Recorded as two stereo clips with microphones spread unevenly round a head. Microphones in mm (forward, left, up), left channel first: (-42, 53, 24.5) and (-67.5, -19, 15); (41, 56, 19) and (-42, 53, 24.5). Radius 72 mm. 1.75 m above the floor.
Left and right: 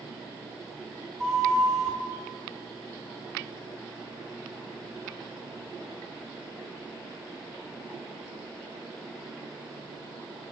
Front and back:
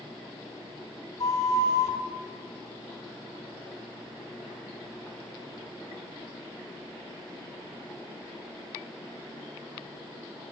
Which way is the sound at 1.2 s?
15° right.